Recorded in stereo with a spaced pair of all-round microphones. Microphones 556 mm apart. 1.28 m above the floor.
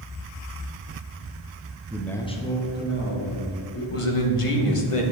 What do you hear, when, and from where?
1.9 s a man speaking: 5° right (ahead or behind), 0.6 m; by 3.8 s 25° left (ahead or behind), 2.5 m
3.9 s a man speaking: 65° left (ahead or behind), 1.1 m